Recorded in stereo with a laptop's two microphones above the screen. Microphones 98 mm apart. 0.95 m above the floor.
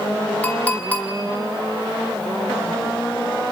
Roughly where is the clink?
Centre.